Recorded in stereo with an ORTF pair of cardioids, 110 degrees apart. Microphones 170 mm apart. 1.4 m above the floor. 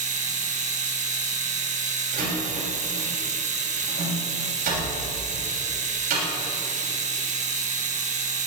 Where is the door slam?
60° right, 6.5 m.